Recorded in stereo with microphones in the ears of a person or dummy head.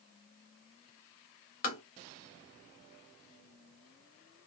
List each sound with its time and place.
1.6 s tapping: 45° left (ahead or behind), 1.0 m